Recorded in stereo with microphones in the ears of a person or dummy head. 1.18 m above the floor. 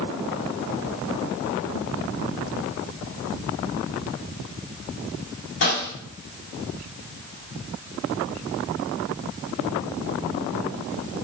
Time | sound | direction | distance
5.6 | a snare drum | 55° left (ahead or behind) | 1.9 m